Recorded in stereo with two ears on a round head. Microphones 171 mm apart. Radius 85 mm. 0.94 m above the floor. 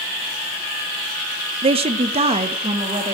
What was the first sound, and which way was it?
A woman speaking, 30° right (ahead or behind).